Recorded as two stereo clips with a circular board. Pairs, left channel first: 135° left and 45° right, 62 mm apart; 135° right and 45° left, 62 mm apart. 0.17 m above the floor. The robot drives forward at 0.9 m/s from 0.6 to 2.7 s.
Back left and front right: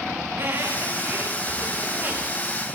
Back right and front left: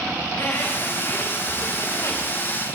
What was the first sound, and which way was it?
A squeak, 85° right.